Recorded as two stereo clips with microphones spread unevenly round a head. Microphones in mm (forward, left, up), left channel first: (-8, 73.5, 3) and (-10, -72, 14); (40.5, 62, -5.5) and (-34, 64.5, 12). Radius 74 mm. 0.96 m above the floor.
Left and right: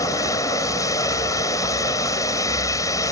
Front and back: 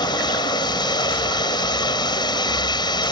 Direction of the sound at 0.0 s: 20° left.